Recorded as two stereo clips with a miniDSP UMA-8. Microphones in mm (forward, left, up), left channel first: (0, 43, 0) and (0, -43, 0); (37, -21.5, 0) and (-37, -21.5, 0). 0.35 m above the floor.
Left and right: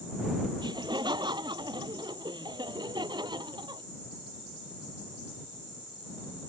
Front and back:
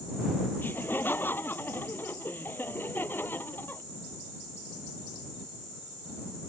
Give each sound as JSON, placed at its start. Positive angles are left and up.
{"t": 0.6, "sound": "laughter", "azimuth_deg": -65}